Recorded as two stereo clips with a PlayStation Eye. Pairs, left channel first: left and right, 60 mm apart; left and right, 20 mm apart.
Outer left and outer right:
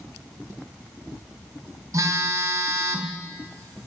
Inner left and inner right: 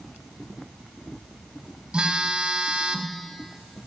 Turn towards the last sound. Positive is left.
turn(degrees=-70)  # may be behind; listen again after turning